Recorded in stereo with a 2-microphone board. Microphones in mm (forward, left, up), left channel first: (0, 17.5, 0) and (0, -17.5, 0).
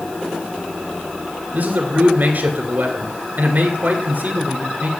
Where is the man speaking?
50° right (ahead or behind), 2 m.